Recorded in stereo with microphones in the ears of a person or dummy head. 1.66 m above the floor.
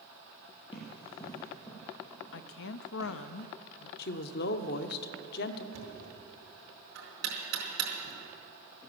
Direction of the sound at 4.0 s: 60° left (ahead or behind).